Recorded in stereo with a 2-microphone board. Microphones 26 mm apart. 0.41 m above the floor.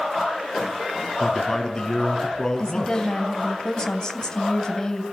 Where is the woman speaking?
25° left (ahead or behind), 3 m.